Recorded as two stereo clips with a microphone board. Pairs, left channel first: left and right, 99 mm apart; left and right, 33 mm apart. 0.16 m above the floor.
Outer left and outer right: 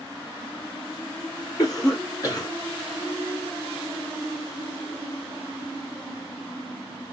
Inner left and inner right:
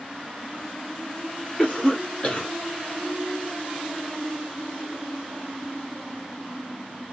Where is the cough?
35° left (ahead or behind), 1.3 m.